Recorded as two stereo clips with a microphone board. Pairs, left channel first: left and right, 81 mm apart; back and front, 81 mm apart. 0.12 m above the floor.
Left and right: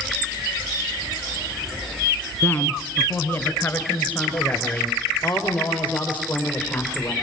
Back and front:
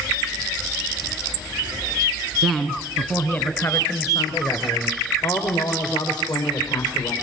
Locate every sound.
2.4 s a woman speaking: 85° left, 1.6 m; by 7.1 s 165° left, 4.5 m